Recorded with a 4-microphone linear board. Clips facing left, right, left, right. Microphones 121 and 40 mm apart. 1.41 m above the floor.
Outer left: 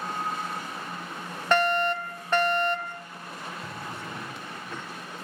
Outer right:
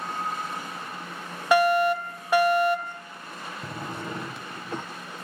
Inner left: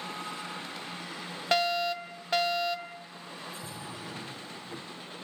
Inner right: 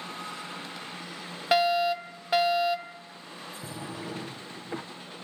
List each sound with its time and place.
1.5 s a fire alarm: 10° right (ahead or behind), 0.9 m
3.6 s a drawer: 35° right (ahead or behind), 0.7 m